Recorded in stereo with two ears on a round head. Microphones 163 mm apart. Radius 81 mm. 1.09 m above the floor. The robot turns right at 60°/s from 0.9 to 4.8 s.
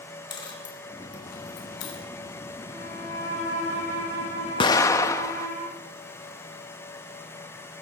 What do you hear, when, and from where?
0.3 s a dropped coin: 25° left (ahead or behind), 3.5 m; by 2.0 s 80° left, 3.5 m
2.7 s a violin: 35° left, 10 m; by 5.6 s 160° left, 10 m
4.6 s an explosion: 25° left (ahead or behind), 0.6 m; by 5.5 s 15° left (ahead or behind), 0.6 m